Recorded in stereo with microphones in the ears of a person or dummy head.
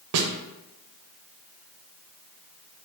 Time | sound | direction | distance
0.1 | a snare drum | 75° right (ahead or behind) | 0.6 m